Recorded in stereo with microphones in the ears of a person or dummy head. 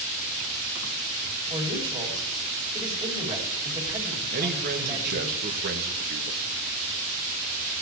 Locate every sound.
1.5 s a man speaking: 20° right (ahead or behind), 3 m
4.3 s a man speaking: 50° right (ahead or behind), 1.6 m